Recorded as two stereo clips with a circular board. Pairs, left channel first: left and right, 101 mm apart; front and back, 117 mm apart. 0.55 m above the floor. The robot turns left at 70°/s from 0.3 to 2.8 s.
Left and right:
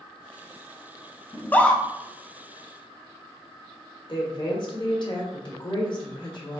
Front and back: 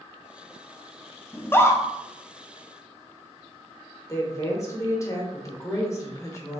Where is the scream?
55° left, 0.6 m; by 1.8 s 20° left, 0.6 m.